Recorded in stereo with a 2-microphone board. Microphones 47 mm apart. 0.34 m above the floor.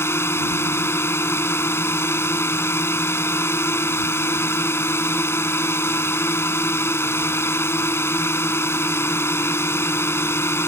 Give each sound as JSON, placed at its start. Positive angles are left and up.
{"t": 0.0, "sound": "a drone", "side_deg": 65}